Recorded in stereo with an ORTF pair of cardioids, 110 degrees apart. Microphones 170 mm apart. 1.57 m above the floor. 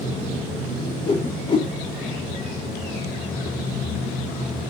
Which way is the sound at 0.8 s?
35° left.